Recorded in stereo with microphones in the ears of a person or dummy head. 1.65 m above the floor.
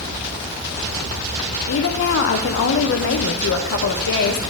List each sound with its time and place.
1.7 s a woman speaking: 70° left (ahead or behind), 0.8 m